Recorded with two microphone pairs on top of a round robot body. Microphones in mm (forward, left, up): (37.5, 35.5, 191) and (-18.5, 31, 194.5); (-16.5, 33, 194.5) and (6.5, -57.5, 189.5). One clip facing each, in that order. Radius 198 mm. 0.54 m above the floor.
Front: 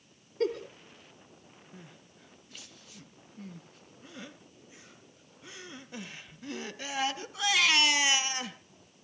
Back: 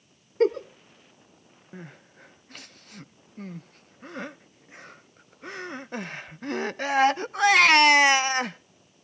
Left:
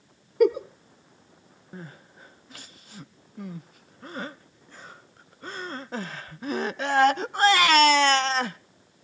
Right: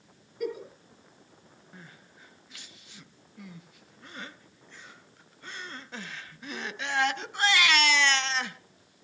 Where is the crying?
150° left, 0.6 m.